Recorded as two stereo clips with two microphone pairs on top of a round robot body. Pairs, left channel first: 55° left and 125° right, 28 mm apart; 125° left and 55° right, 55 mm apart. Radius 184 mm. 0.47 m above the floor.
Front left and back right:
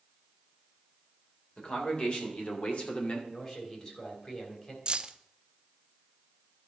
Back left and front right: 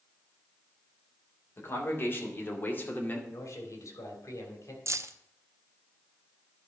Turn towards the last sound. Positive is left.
turn(degrees=-75)